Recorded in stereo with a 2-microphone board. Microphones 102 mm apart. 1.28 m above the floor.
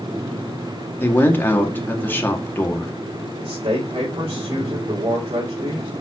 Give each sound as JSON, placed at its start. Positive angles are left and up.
{"t": 1.0, "sound": "a man speaking", "side_deg": 20, "distance_m": 2.0}
{"t": 3.4, "sound": "a man speaking", "side_deg": -75, "distance_m": 4.0}